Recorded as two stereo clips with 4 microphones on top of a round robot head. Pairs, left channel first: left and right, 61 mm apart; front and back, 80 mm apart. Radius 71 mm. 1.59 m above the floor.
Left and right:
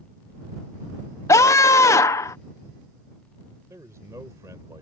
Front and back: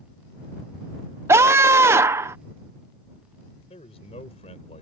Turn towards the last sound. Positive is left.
turn(degrees=-30)